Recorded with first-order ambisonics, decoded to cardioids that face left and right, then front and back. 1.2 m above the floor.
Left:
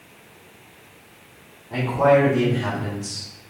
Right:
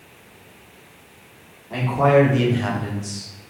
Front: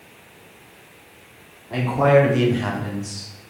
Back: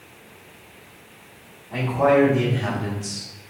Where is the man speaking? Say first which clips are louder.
Even, front 2 dB; 25° right, 1.5 m; by 3.3 s 165° left, 0.9 m.